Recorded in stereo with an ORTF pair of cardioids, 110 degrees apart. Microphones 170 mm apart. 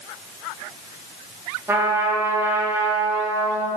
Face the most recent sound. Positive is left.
turn(degrees=-15)